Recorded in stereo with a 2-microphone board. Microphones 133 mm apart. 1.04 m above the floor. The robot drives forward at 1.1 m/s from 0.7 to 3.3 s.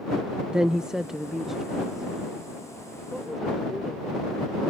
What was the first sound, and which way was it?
A woman speaking, 5° right (ahead or behind).